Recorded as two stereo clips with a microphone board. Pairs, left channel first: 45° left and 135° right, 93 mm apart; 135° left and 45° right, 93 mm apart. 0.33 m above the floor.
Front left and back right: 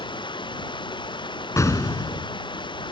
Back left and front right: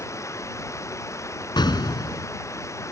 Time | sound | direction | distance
0.0 | running water | 75° left | ?
1.6 | an explosion | 100° left | ?